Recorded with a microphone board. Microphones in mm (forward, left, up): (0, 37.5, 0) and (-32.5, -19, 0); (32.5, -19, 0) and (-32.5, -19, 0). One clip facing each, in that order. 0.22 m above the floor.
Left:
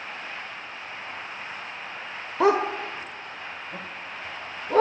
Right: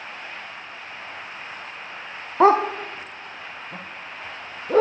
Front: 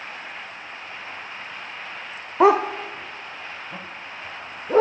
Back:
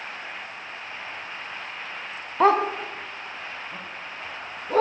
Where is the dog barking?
80° right, 0.6 m; by 4.8 s 75° right, 3.5 m.